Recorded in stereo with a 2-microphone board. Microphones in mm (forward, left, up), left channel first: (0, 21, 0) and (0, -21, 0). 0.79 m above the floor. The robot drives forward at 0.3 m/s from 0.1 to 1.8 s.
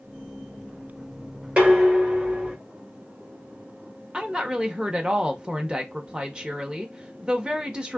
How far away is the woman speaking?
About 0.6 m.